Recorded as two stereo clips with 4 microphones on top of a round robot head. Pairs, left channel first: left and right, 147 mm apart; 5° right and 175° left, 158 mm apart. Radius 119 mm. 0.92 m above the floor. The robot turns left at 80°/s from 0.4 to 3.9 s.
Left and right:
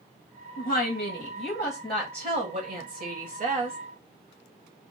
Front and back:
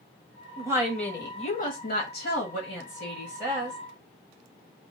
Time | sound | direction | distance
0.6 | a woman speaking | 110° left | 1.5 m